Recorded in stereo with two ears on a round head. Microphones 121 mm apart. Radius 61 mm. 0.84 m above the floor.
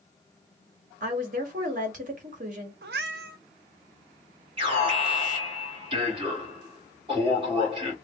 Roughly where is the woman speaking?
Right.